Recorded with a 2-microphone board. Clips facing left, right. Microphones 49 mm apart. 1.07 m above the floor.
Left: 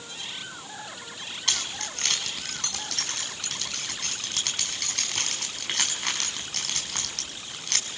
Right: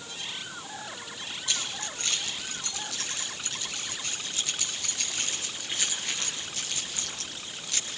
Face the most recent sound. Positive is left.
turn(degrees=70)  # may be behind; listen again after turning